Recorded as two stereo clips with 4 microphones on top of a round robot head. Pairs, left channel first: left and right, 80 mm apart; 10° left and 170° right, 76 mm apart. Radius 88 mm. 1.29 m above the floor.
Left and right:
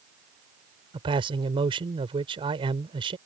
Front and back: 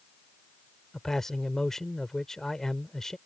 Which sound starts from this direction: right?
A man speaking, at 0.9 s.